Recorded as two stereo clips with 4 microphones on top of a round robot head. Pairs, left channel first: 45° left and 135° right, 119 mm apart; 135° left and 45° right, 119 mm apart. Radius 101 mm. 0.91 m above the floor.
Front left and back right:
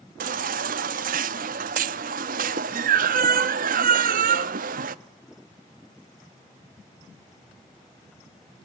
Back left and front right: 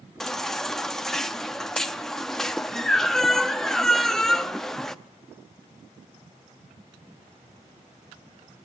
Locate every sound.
0.2 s a baby crying: 135° right, 0.6 m